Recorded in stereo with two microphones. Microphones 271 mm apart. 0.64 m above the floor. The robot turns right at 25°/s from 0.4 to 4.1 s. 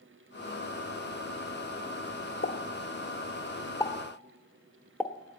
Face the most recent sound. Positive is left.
turn(degrees=5)  # may be behind; listen again after turning